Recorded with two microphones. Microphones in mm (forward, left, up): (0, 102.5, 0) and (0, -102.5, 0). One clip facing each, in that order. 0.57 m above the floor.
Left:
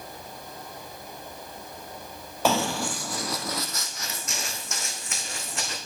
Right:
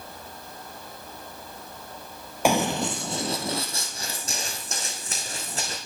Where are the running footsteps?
15° right (ahead or behind), 0.6 m; by 5.8 s 35° right (ahead or behind), 2 m.